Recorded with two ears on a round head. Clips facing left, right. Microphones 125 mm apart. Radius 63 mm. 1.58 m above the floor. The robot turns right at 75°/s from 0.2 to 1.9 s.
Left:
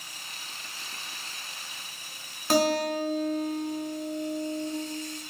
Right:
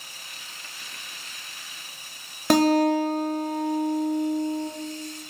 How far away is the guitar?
About 0.7 m.